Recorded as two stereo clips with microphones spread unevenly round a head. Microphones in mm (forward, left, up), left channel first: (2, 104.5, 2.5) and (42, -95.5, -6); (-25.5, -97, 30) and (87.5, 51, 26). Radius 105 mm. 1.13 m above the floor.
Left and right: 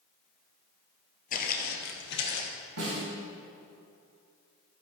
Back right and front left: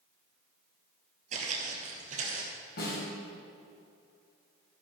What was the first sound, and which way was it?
Footsteps, 95° left.